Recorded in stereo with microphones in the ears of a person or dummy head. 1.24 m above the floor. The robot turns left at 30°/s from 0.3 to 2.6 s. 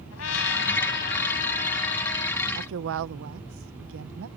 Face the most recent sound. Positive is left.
turn(degrees=-60)  # may be behind; listen again after turning